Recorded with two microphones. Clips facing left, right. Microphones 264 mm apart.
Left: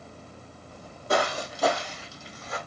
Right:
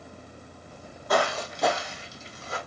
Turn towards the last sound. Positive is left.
turn(degrees=-30)  # may be behind; listen again after turning